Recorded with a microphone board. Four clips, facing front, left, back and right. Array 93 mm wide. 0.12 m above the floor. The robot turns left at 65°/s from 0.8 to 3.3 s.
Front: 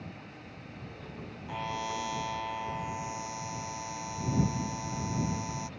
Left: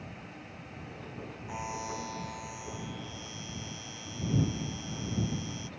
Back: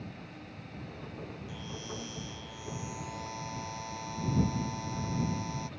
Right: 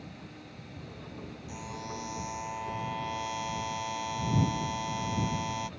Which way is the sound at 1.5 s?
35° left.